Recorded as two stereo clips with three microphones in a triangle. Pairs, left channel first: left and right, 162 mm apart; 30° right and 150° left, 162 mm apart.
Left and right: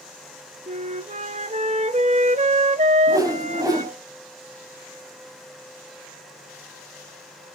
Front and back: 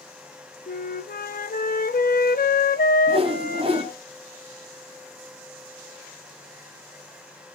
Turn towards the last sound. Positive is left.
turn(degrees=-155)